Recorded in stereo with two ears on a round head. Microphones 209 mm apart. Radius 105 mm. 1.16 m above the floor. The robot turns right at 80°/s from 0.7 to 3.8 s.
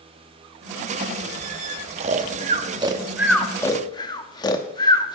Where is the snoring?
30° right (ahead or behind), 0.6 m; by 5.2 s 15° left (ahead or behind), 0.6 m.